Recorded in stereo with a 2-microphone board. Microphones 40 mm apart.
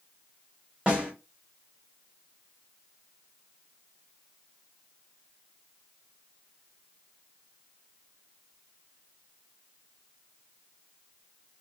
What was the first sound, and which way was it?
A snare drum, 25° right (ahead or behind).